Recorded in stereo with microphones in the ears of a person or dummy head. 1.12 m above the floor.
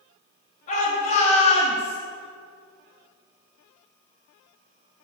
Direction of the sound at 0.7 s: 40° left (ahead or behind).